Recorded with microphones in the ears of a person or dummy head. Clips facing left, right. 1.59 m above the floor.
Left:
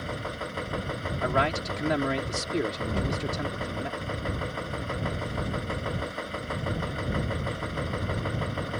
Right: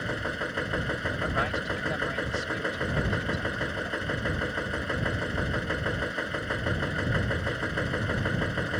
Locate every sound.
0.0 s a machine running: 20° right (ahead or behind)
1.2 s a man speaking: 75° left (ahead or behind)